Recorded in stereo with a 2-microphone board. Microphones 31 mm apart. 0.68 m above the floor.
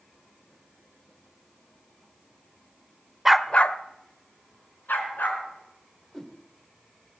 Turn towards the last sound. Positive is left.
turn(degrees=15)  # may be behind; listen again after turning